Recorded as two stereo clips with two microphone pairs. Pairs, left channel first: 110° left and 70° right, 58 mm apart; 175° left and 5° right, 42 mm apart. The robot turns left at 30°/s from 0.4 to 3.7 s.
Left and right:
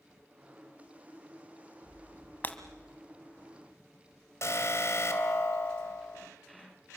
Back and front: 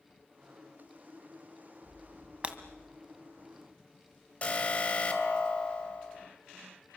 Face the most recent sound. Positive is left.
turn(degrees=125)